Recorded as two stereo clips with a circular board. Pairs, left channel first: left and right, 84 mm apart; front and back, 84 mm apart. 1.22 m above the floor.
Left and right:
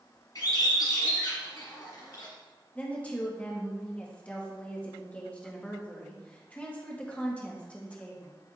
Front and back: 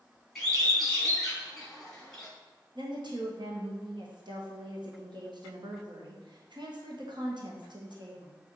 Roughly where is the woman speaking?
Behind.